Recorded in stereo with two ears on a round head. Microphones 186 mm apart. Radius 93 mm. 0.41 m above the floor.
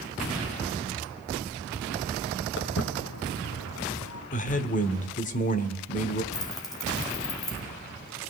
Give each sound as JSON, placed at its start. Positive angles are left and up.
{"t": 2.6, "sound": "footsteps", "side_deg": 60, "distance_m": 1.8}
{"t": 4.3, "sound": "a man speaking", "side_deg": 40, "distance_m": 1.2}
{"t": 6.3, "sound": "keys jangling", "side_deg": 20, "distance_m": 2.5}